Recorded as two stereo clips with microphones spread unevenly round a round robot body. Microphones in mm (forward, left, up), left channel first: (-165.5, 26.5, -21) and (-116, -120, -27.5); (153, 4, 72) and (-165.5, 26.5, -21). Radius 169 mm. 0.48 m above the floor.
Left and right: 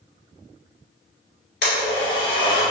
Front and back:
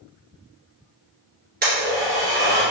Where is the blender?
110° left, 1.8 m.